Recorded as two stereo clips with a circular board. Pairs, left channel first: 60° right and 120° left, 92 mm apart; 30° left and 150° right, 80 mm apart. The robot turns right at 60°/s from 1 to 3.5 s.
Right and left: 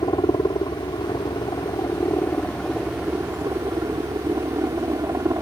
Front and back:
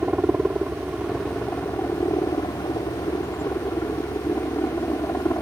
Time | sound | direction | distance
0.0 | a helicopter | 75° right | ?